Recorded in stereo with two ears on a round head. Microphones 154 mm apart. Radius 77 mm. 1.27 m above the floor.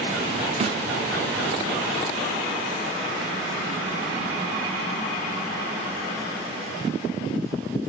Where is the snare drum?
35° right (ahead or behind), 0.5 m.